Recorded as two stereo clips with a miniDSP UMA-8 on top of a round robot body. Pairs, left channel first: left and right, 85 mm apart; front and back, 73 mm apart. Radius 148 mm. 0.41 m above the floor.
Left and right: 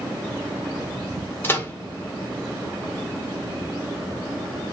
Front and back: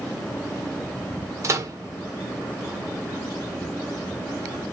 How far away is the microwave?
About 1.1 m.